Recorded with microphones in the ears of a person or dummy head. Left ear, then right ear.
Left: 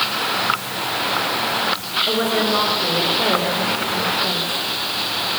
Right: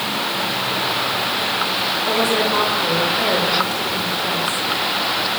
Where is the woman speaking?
15° right (ahead or behind), 5.5 m.